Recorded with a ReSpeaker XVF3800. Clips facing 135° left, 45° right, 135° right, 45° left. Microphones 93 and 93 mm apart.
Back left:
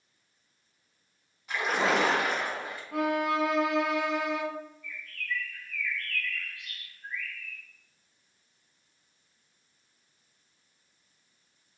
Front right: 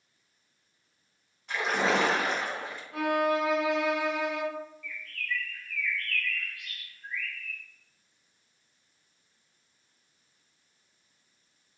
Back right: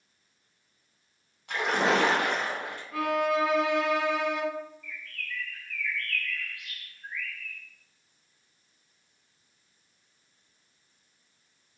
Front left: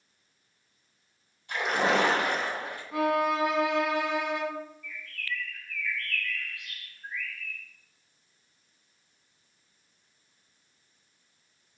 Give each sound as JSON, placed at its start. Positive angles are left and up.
{"t": 1.5, "sound": "a splash", "azimuth_deg": -135, "distance_m": 0.8}
{"t": 2.9, "sound": "a violin", "azimuth_deg": 115, "distance_m": 0.7}
{"t": 4.8, "sound": "a bird", "azimuth_deg": -165, "distance_m": 0.8}